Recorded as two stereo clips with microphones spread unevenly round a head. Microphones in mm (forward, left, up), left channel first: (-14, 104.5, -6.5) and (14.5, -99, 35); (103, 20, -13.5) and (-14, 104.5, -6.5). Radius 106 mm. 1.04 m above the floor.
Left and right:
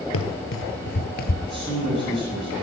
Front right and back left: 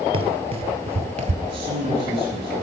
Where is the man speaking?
170° right, 8.5 m.